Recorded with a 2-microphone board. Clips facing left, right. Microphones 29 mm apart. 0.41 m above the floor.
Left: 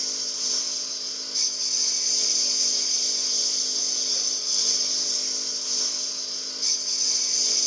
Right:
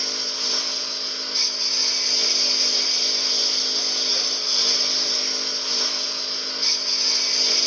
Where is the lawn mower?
40° right (ahead or behind); by 7.7 s 45° right (ahead or behind).